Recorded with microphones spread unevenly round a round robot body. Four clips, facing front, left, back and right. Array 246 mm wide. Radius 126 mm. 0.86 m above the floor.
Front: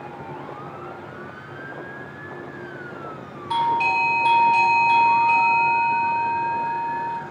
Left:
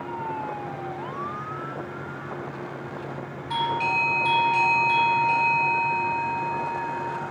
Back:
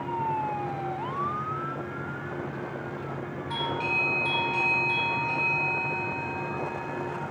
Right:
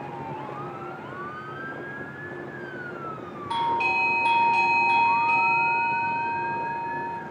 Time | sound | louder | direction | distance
3.5 | a doorbell | right 1 dB, front 11 dB | 20° right | 2.5 m